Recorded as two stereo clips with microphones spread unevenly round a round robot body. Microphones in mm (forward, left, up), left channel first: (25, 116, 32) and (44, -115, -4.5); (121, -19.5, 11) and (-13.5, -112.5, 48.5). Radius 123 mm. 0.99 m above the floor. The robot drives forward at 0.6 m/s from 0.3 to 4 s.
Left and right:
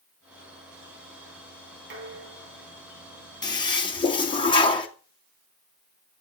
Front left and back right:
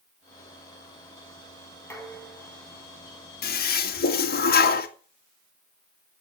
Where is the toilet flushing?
20° left, 3 m; by 4.9 s 25° left, 2.5 m.